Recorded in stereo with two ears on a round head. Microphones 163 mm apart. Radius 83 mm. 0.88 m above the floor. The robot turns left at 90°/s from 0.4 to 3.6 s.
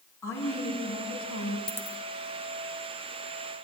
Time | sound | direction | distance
0.2 | a woman speaking | 165° left | 9 m
1.7 | a dropped coin | 5° left (ahead or behind) | 2.5 m